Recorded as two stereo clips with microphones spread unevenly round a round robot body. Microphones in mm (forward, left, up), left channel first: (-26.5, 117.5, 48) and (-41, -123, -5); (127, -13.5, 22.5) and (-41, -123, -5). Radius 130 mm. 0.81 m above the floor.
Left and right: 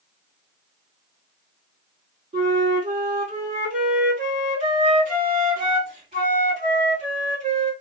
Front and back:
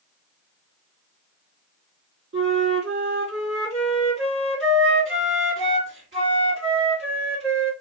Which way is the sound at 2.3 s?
150° right.